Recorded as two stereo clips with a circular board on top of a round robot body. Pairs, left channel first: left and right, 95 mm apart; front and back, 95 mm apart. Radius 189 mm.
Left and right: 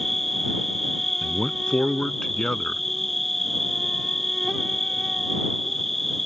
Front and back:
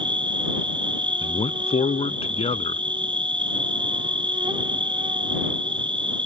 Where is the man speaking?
5° left.